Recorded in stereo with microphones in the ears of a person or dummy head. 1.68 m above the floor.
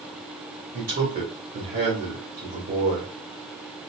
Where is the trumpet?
I don't hear a trumpet.